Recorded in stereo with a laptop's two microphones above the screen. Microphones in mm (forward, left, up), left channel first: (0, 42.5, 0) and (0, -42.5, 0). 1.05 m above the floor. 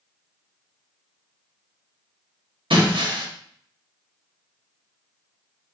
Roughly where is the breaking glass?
Right.